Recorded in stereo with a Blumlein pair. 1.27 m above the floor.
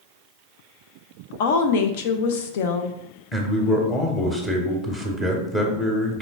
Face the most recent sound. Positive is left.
turn(degrees=10)